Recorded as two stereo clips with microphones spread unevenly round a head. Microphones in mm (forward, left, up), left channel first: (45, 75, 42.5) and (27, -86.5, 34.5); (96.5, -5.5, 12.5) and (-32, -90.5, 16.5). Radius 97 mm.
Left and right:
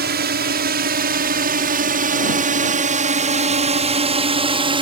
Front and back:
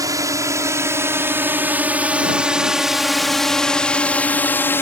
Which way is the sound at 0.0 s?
80° right.